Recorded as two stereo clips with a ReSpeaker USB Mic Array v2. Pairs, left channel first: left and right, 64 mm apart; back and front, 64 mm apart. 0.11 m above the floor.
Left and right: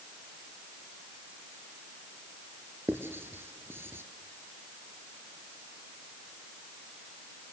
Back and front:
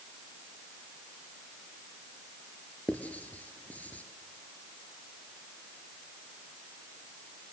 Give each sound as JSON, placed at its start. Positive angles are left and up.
{"t": 2.9, "sound": "writing", "azimuth_deg": -125, "distance_m": 2.5}